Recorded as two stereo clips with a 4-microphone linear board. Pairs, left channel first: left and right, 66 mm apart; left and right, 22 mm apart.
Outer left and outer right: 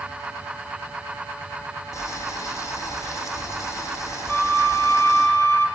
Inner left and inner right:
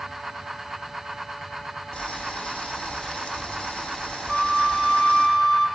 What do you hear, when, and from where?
1.9 s boiling: 50° left (ahead or behind), 5 m
4.3 s a flute: 30° left (ahead or behind), 2.5 m